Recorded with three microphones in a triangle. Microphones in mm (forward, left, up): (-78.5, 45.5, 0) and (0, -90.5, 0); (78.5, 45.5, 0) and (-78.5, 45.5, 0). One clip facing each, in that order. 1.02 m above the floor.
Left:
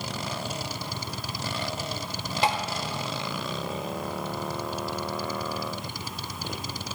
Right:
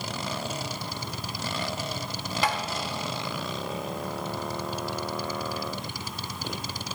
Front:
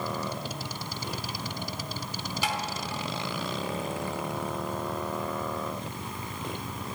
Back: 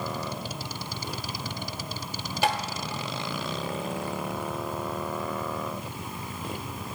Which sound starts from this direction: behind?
Tapping, at 2.4 s.